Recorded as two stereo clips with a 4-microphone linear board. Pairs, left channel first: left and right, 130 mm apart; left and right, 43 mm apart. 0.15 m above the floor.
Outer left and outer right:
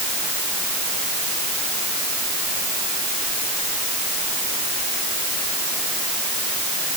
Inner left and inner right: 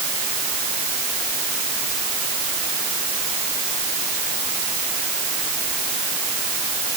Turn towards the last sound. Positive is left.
No sound to turn to.